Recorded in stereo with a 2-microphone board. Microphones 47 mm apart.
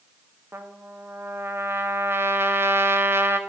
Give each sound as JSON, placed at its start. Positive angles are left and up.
{"t": 0.5, "sound": "a trumpet", "side_deg": -55, "distance_m": 1.3}